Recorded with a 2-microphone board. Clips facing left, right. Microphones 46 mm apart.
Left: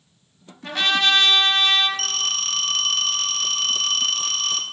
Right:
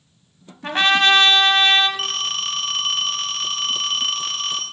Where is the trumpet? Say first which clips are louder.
Right 4 dB; 40° right (ahead or behind), 0.8 m.